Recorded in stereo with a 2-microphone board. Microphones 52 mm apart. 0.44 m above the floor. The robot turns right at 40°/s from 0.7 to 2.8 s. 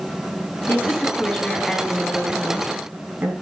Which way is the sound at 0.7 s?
135° left.